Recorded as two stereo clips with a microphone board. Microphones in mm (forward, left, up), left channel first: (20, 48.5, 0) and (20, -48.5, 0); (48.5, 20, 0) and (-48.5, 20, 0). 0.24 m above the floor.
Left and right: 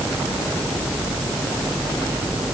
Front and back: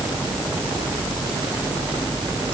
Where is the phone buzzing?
I don't hear a phone buzzing.